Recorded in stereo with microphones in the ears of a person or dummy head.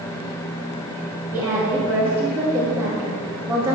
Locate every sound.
1.3 s a woman speaking: 10° right (ahead or behind), 1.9 m